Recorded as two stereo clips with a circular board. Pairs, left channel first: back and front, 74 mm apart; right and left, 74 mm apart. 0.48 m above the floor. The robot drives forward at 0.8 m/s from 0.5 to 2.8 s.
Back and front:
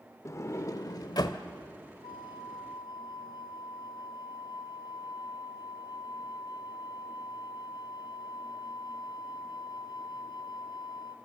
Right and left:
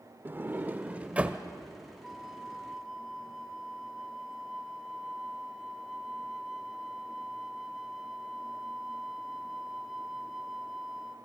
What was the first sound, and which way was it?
A sliding door, 145° left.